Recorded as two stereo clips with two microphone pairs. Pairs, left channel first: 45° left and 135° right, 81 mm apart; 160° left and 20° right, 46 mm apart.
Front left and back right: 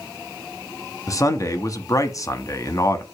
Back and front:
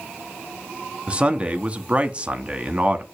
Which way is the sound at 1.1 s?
30° left.